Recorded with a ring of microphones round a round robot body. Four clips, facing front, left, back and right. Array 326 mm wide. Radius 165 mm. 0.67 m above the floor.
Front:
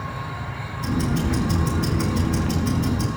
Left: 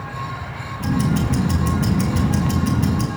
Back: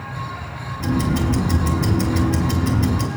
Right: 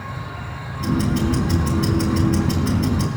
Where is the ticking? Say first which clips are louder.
Even, back 3 dB; 150° left, 3 m.